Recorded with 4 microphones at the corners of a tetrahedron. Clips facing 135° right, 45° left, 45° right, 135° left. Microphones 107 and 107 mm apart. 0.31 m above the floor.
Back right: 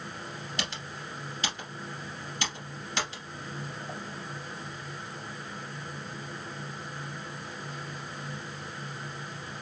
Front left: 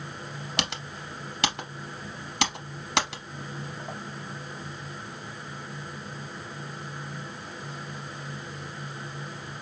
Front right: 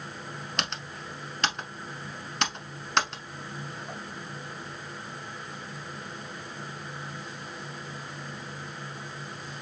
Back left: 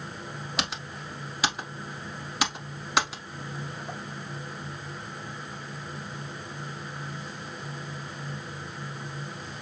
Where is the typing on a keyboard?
50° left, 0.8 m.